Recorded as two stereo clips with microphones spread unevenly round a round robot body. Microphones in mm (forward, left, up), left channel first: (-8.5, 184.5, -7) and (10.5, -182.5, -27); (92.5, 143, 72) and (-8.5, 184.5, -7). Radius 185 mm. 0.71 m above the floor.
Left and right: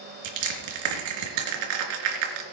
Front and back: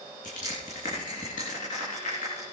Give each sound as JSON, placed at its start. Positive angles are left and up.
{"t": 0.2, "sound": "crushing", "azimuth_deg": -70, "distance_m": 4.0}